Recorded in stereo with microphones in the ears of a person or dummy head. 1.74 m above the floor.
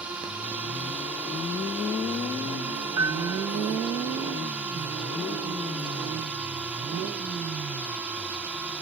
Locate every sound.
0.0 s a drone: 10° right (ahead or behind)
3.0 s a piano: 15° right (ahead or behind)